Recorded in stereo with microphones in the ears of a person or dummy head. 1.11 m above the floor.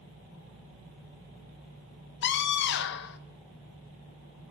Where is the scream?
60° left (ahead or behind), 1.2 m.